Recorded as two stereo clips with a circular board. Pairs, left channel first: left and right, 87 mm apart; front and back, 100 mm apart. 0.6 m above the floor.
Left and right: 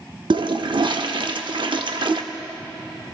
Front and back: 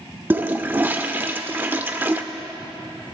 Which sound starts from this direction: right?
A toilet flushing, at 0.3 s.